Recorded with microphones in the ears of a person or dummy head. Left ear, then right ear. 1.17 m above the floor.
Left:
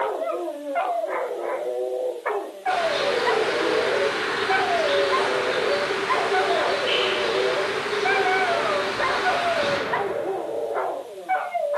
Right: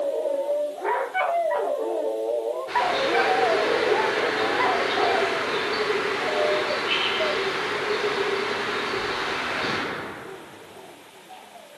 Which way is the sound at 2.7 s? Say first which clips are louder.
Left 2 dB; 40° left (ahead or behind).